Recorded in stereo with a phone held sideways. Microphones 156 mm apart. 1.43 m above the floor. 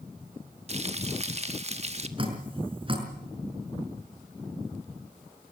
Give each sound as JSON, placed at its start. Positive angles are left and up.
{"t": 0.7, "sound": "frying", "side_deg": -45, "distance_m": 1.4}
{"t": 2.2, "sound": "dripping", "side_deg": -35, "distance_m": 5.5}